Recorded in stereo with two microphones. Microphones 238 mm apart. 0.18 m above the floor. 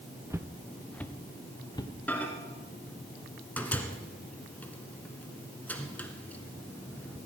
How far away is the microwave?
About 1.4 m.